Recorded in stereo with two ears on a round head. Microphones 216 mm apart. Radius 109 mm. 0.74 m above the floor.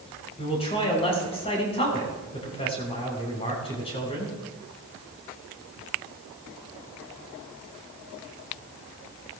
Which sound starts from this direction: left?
A man speaking, at 0.4 s.